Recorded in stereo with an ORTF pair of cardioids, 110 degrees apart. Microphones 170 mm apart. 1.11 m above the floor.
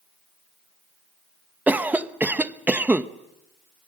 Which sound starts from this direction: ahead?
A cough, at 1.7 s.